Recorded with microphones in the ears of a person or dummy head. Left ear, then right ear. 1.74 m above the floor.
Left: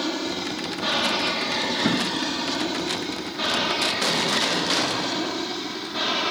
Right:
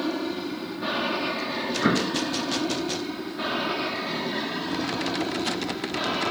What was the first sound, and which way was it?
An aircraft, 25° left (ahead or behind).